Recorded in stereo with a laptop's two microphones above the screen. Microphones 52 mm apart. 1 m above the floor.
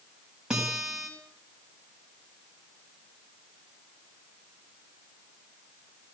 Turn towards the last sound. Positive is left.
turn(degrees=-15)  # may be behind; listen again after turning